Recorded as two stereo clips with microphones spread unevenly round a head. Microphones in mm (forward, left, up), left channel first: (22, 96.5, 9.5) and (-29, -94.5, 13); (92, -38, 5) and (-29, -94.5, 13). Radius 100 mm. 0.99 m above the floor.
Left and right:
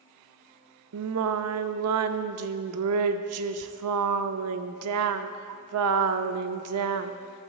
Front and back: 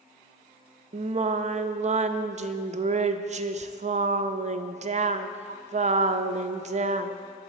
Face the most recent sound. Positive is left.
turn(degrees=-115)